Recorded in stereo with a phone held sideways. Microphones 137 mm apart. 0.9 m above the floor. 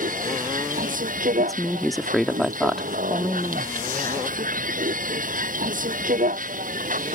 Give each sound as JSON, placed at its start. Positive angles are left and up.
{"t": 0.0, "sound": "a vehicle", "side_deg": -85}
{"t": 1.4, "sound": "a woman speaking", "side_deg": 0}